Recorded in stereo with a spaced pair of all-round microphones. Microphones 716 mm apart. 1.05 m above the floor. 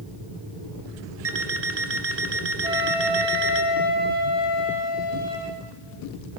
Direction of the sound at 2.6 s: 55° right (ahead or behind).